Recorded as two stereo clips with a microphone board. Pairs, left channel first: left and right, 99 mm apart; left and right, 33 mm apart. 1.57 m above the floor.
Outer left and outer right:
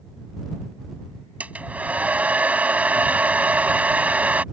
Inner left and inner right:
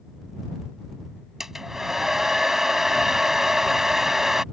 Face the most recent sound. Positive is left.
turn(degrees=-15)  # may be behind; listen again after turning